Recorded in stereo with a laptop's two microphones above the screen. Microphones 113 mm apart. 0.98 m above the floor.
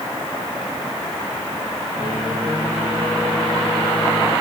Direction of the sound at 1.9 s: 25° right (ahead or behind).